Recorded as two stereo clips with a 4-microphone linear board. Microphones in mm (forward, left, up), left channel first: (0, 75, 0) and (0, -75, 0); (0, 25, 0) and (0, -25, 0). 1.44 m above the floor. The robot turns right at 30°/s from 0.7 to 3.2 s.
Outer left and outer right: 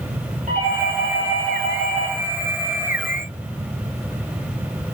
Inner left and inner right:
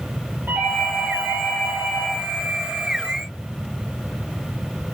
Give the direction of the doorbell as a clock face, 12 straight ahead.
4 o'clock.